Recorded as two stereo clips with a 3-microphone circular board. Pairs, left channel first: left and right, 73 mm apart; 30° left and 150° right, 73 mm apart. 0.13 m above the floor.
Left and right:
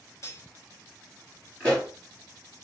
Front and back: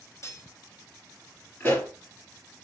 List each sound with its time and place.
0.2 s cutlery clinking: 60° left, 1.1 m
1.6 s a pop: 30° left, 1.5 m